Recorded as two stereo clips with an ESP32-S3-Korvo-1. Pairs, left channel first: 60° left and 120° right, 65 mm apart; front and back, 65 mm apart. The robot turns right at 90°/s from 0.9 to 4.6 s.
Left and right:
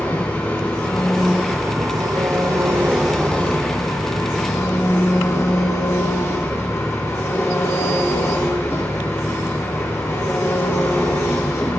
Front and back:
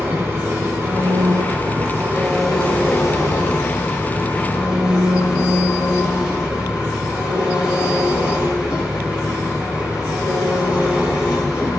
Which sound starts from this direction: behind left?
An engine running, at 0.0 s.